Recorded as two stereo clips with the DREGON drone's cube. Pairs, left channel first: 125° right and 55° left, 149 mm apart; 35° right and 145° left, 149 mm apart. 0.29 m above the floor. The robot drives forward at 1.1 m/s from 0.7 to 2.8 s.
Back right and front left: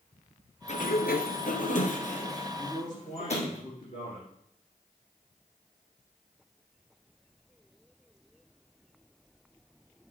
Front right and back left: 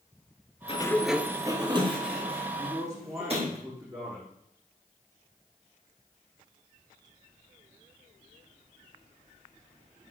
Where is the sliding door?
85° right, 0.5 m; by 3.6 s 165° right, 2.5 m.